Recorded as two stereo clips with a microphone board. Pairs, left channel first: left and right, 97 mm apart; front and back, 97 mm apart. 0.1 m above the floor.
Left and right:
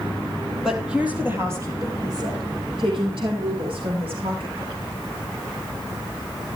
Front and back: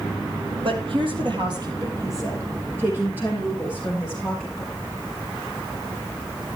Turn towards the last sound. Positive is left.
turn(degrees=-95)